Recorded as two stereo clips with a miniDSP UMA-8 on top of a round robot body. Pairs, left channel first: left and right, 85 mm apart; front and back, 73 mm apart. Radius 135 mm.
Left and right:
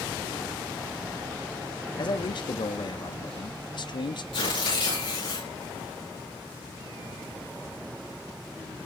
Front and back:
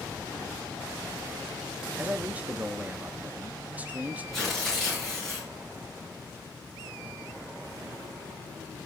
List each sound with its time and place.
2.0 s a man speaking: 115° left, 1.1 m
4.3 s tearing paper: 85° left, 7.5 m